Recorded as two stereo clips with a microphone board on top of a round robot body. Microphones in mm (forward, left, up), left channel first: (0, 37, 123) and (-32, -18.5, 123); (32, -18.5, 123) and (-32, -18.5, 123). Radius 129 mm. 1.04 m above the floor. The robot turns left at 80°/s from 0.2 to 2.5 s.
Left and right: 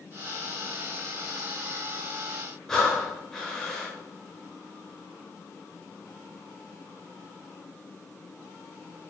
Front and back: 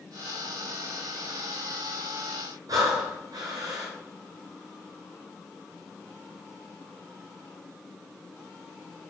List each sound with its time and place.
2.7 s breathing: 140° left, 1.0 m